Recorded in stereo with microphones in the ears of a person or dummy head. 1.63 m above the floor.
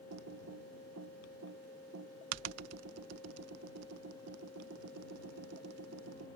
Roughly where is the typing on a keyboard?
Right.